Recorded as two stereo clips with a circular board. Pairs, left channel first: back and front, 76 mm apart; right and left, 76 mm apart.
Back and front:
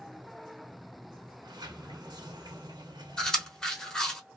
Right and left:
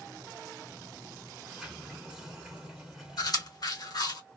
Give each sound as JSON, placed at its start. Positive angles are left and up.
{"t": 1.4, "sound": "a sliding door", "azimuth_deg": 10, "distance_m": 1.0}
{"t": 3.2, "sound": "chewing", "azimuth_deg": -100, "distance_m": 1.0}